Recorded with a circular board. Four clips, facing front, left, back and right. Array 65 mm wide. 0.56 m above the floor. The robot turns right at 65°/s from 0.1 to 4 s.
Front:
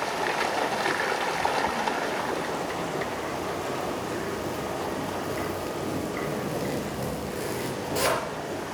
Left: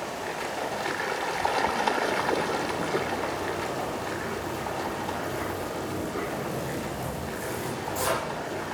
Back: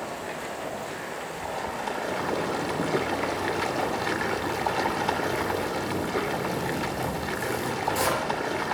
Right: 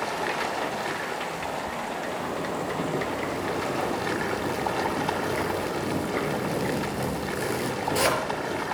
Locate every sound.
0.0 s running water: 45° right, 1.6 m; by 8.7 s 150° right, 1.6 m
2.1 s a zipper: 160° left, 4 m; by 8.6 s 75° right, 4 m